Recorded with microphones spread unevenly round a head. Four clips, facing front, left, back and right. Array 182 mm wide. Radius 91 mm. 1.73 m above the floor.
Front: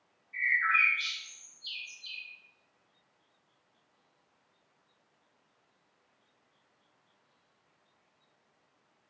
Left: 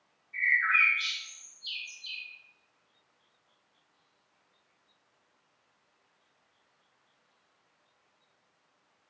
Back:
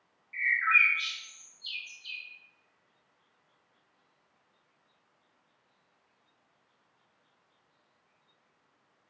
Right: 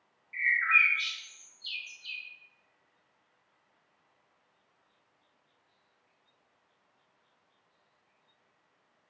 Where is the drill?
I don't hear a drill.